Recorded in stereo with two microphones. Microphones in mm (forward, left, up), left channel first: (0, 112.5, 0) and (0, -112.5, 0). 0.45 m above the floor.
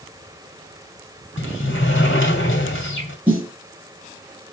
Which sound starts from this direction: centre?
A snare drum, at 3.3 s.